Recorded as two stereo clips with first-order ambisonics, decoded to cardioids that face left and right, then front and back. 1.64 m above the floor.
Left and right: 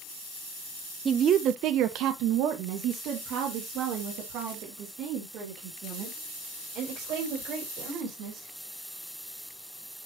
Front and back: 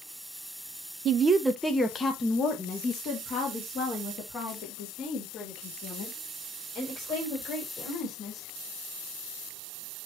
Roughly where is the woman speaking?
Behind right.